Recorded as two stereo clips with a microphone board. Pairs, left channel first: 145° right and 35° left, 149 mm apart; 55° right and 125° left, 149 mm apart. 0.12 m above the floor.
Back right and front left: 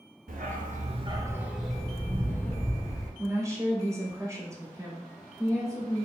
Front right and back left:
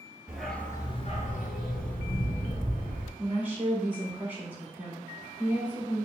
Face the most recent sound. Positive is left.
turn(degrees=65)